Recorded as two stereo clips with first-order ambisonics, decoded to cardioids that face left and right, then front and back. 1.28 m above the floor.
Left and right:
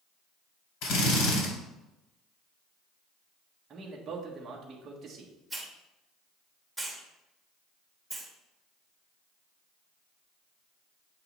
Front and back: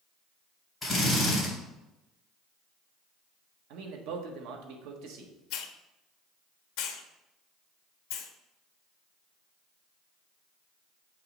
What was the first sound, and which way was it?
A drill, 90° left.